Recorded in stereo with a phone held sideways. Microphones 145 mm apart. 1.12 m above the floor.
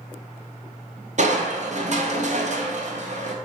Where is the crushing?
55° right (ahead or behind), 0.5 m.